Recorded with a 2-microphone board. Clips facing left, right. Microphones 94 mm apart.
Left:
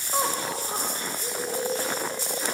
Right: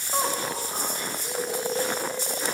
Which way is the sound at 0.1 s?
Centre (ahead or behind).